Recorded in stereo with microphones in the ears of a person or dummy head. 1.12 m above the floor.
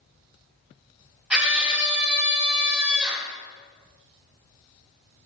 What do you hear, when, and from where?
1.3 s a scream: 5° right (ahead or behind), 2 m